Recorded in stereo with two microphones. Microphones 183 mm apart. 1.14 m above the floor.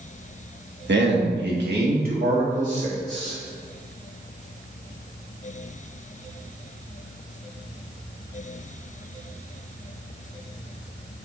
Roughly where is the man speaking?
Right.